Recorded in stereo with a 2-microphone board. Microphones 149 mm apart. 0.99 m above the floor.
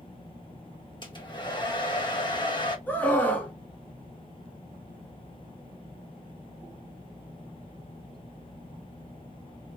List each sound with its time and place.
1.0 s a hair dryer: 30° left (ahead or behind), 1.0 m
2.9 s a scream: 10° left (ahead or behind), 1.4 m